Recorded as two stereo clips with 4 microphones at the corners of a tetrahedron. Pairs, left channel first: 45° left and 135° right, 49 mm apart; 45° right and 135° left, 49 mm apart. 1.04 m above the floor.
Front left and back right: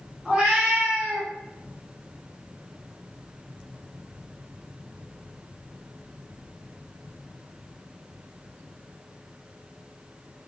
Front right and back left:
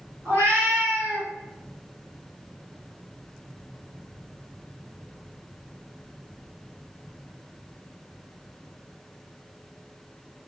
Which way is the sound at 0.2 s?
150° left.